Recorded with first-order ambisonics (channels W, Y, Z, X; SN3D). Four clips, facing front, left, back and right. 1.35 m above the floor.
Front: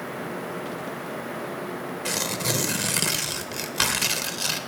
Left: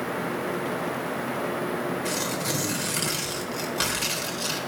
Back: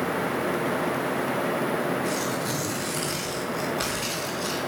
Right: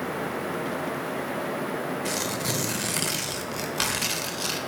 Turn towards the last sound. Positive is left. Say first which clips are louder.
# even, even
turn(degrees=-15)